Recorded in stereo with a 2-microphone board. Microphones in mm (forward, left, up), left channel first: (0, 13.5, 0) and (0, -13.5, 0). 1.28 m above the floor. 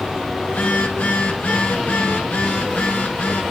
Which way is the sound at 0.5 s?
80° left.